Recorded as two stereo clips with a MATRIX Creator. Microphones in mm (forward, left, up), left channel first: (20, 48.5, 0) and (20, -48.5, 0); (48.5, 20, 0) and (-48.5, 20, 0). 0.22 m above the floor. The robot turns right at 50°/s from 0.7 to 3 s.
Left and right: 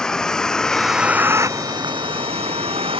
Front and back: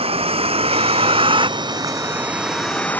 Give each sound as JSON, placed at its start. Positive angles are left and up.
{"t": 0.0, "sound": "a vehicle", "azimuth_deg": 175}